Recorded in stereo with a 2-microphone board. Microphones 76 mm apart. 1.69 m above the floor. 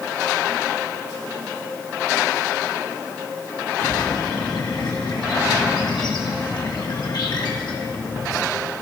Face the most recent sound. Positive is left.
turn(degrees=75)  # may be behind; listen again after turning